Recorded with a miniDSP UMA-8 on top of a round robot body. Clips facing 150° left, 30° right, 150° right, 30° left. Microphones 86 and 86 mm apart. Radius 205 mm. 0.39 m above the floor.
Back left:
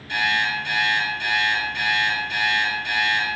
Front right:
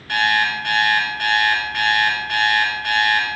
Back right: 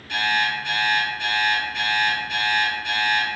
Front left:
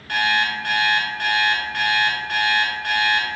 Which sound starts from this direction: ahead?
An alarm clock, at 0.1 s.